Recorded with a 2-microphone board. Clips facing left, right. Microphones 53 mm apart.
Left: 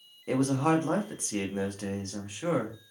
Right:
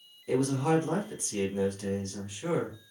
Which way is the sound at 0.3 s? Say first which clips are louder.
Left 1 dB; 45° left (ahead or behind).